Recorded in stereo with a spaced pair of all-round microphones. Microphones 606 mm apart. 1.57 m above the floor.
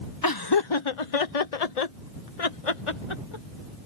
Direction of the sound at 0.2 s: 35° left (ahead or behind).